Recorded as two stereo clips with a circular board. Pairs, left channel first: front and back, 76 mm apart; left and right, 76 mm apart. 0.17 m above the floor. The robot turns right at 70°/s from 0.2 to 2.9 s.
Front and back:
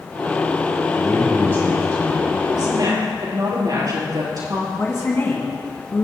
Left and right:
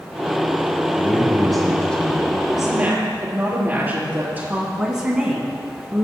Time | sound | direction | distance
1.0 | a man speaking | 40° right | 1.5 m
2.5 | a woman speaking | straight behind | 4 m
4.7 | a woman speaking | 15° right | 1.9 m